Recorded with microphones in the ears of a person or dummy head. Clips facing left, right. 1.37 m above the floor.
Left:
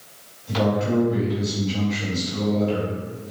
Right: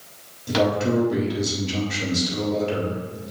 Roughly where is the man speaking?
Right.